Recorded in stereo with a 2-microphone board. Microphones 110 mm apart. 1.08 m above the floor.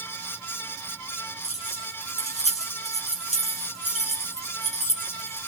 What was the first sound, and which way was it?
Keys jangling, 80° left.